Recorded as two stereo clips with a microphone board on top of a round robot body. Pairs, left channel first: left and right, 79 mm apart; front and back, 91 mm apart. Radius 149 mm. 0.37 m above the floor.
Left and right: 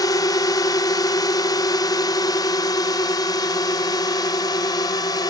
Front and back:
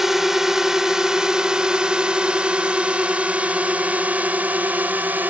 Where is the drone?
95° left; by 5.3 s 110° left.